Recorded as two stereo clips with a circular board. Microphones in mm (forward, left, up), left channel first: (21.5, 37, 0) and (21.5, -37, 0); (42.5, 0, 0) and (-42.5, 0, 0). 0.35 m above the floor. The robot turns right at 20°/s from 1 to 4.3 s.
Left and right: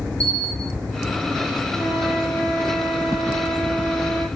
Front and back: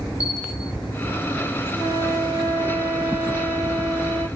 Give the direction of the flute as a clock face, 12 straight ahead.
4 o'clock.